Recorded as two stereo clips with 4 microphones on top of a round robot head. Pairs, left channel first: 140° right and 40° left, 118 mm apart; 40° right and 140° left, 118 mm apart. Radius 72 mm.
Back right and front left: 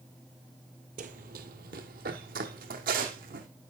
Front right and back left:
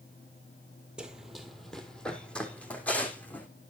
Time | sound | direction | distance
1.0 | running footsteps | 55° left | 1.1 m